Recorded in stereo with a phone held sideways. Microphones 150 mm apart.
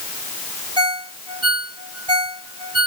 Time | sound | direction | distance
0.8 | a ringtone | 30° right (ahead or behind) | 1.7 m